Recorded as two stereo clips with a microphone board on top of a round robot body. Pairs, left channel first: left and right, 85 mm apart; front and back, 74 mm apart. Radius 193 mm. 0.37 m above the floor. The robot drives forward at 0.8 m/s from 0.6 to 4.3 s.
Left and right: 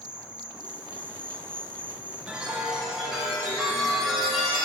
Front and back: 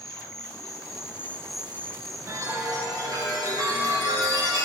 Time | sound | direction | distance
0.0 | an insect | 15° right | 1.0 m
2.3 | a chime | 165° right | 1.5 m